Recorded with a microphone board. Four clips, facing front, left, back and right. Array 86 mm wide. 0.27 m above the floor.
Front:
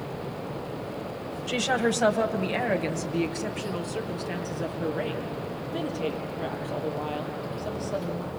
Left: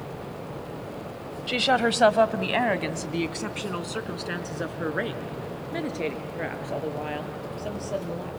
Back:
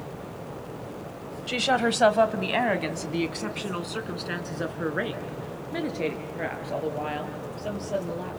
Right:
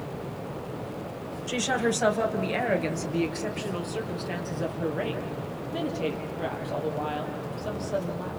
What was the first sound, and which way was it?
A woman speaking, 110° left.